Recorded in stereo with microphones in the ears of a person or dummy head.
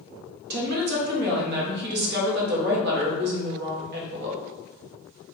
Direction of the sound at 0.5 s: 60° right (ahead or behind).